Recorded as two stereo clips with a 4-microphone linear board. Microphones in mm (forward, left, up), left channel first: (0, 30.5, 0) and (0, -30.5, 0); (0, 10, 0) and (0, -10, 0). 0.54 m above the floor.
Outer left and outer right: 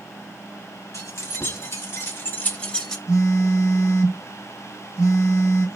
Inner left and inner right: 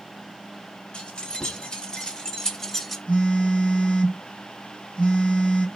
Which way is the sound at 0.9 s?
60° left (ahead or behind).